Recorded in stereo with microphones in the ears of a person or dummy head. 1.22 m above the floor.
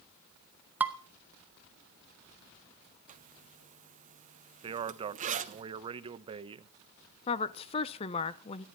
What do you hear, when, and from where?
0.8 s dishes clattering: 5° right (ahead or behind), 0.9 m
3.1 s a zipper: 40° right (ahead or behind), 0.6 m
4.6 s a man speaking: 25° right (ahead or behind), 0.7 m
7.3 s a woman speaking: 30° left (ahead or behind), 0.7 m